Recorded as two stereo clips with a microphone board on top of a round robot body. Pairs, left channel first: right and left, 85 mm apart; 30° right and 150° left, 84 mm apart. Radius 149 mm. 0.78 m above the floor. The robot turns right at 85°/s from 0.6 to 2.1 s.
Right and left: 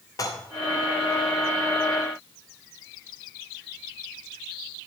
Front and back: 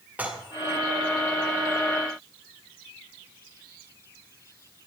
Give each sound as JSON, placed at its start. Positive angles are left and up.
{"t": 0.2, "sound": "dishes clattering", "azimuth_deg": -140, "distance_m": 1.5}